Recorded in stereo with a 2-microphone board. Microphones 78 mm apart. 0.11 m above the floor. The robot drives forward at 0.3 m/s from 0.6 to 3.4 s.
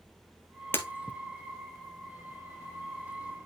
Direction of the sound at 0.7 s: 25° left (ahead or behind).